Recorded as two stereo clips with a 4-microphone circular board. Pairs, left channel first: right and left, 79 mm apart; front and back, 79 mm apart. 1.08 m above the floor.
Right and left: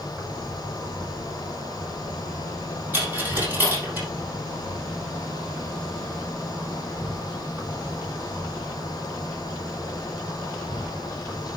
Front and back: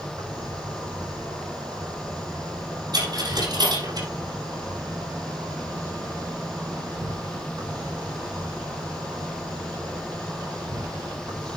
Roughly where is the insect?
Behind left.